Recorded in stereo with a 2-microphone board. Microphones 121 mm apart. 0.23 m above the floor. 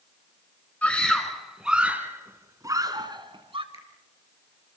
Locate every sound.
0.8 s a scream: 10° left (ahead or behind), 2 m; by 3.6 s 45° right (ahead or behind), 2 m
3.7 s a finger snap: 50° left (ahead or behind), 4.5 m